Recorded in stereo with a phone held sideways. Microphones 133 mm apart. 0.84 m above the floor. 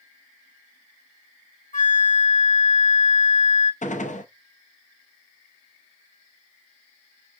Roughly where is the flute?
Left.